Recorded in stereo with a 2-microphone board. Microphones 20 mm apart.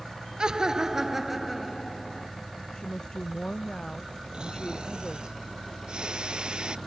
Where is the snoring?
50° right (ahead or behind).